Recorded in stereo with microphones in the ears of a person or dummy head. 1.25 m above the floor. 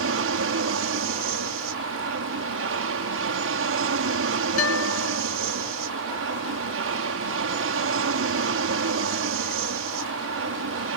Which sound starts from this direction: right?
An aircraft, at 0.0 s.